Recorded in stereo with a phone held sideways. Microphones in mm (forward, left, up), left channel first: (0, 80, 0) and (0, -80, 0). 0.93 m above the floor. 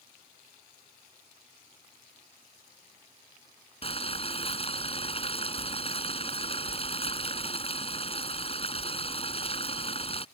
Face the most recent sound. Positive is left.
turn(degrees=35)  # may be behind; listen again after turning